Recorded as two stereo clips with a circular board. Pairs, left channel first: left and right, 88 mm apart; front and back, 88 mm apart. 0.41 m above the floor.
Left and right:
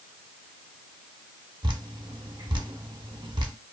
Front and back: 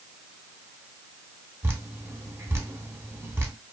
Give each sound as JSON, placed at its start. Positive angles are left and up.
{"t": 1.6, "sound": "dripping", "azimuth_deg": -120, "distance_m": 0.5}